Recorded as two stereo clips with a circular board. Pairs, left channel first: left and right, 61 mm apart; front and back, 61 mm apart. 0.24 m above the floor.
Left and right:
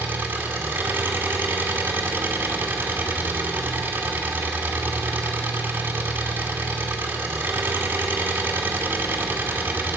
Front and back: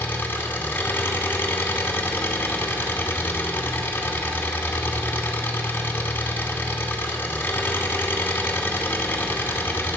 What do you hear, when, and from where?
0.0 s an engine running: 50° right, 1.8 m